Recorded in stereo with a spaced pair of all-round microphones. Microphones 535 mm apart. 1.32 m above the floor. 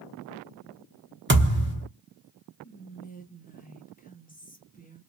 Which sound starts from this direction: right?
A thud, at 1.3 s.